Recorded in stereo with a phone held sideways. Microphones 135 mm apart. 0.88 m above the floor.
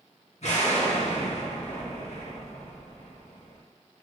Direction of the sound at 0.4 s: 60° left (ahead or behind).